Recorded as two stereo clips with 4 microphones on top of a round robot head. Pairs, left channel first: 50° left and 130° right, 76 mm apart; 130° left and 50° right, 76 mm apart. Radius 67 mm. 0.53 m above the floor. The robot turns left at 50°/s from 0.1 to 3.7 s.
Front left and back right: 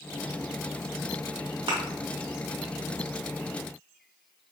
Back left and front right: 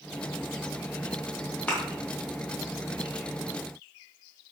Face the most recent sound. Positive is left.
turn(degrees=105)